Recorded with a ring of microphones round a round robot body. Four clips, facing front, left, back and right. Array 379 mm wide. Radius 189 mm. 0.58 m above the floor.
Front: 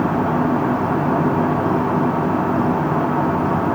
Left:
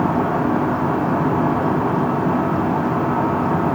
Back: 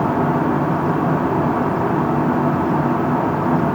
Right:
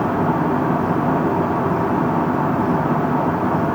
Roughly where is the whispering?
No whispering in this recording.